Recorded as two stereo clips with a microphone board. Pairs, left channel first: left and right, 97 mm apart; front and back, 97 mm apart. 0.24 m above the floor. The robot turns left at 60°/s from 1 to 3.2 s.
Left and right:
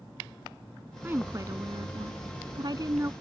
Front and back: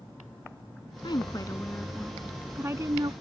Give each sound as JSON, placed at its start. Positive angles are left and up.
{"t": 1.0, "sound": "a woman speaking", "azimuth_deg": -25}